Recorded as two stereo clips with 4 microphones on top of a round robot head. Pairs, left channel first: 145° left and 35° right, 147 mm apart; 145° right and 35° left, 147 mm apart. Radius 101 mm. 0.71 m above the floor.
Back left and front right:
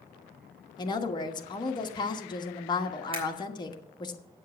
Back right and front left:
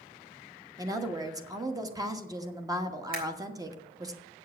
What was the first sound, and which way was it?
A woman speaking, 95° left.